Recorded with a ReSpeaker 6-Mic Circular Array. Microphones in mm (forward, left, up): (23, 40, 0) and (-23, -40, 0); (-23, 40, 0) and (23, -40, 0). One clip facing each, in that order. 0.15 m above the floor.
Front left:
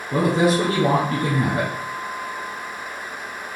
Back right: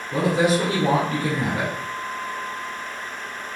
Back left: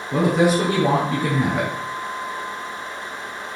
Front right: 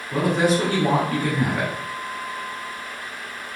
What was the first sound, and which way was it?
A woman speaking, 50° left.